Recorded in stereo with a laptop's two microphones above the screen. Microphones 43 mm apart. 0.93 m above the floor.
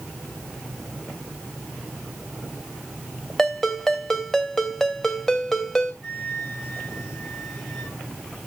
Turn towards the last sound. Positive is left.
turn(degrees=10)  # may be behind; listen again after turning